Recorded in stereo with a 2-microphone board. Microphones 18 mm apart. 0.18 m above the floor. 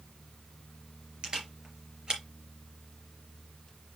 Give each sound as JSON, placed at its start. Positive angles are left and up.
{"t": 1.2, "sound": "a camera shutter", "side_deg": -45, "distance_m": 4.0}